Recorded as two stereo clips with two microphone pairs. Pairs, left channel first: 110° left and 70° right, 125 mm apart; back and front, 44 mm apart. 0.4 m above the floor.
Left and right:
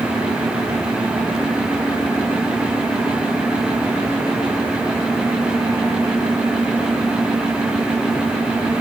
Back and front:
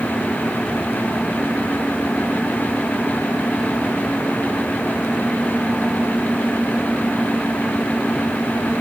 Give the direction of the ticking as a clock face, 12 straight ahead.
No ticking in this recording.